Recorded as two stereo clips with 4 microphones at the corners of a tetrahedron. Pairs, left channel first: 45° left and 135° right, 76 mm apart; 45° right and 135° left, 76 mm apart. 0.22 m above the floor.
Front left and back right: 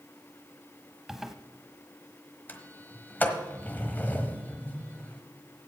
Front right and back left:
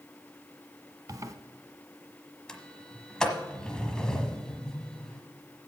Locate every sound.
1.1 s a zipper: 140° left, 0.7 m
2.5 s a sliding door: 20° left, 1.2 m